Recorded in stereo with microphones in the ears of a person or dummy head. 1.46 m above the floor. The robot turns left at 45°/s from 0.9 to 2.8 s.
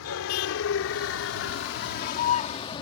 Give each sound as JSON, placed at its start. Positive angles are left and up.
{"t": 0.0, "sound": "a vehicle", "side_deg": 80}